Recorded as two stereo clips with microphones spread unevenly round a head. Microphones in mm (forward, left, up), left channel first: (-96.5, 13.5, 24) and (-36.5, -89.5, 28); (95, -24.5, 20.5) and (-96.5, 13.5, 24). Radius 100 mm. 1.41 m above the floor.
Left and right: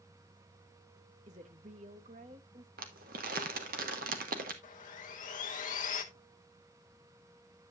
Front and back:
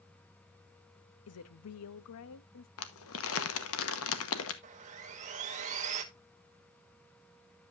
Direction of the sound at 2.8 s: 35° right.